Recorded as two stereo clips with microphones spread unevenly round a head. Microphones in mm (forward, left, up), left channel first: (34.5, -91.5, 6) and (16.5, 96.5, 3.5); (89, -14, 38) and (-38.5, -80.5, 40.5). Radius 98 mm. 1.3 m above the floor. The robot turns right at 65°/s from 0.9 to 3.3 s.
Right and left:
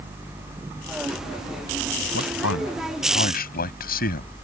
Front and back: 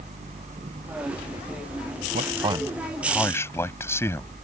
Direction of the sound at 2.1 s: 120° right.